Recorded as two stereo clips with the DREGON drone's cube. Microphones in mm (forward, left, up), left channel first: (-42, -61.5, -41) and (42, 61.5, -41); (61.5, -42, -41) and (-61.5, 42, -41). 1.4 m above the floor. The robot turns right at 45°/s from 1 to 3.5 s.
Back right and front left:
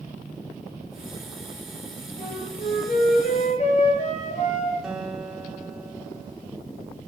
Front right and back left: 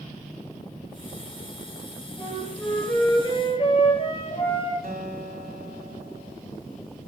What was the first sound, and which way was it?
A flute, 145° right.